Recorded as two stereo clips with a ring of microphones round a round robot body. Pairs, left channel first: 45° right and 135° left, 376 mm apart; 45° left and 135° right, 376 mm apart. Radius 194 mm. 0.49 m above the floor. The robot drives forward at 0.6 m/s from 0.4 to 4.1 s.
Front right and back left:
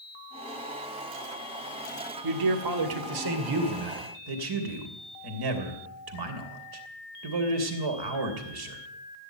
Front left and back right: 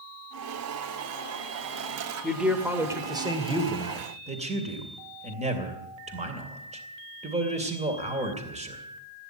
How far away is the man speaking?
About 2 m.